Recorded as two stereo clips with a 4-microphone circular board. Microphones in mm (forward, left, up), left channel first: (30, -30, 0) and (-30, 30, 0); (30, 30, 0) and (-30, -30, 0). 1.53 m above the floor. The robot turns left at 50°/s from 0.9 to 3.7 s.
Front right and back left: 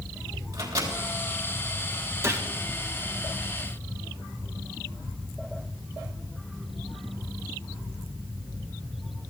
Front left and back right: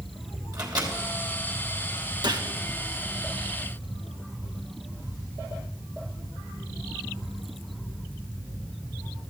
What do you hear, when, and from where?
0.5 s a microwave: 175° right, 3 m
2.2 s a gunshot: 165° right, 1.3 m; by 2.5 s 175° right, 1.3 m